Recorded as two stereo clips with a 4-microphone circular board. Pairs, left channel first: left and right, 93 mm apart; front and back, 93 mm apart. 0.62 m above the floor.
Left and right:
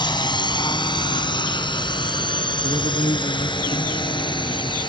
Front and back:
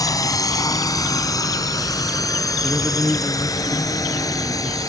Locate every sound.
0.0 s a drone: 50° left; by 4.9 s 55° left
2.6 s a man speaking: 85° left